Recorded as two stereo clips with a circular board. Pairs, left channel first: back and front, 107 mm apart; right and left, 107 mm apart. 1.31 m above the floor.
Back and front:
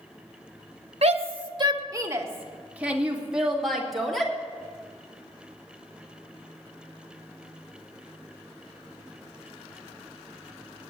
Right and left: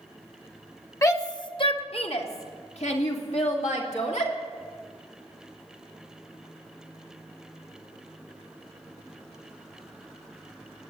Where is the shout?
25° right, 1.2 m; by 4.3 s 90° right, 3 m.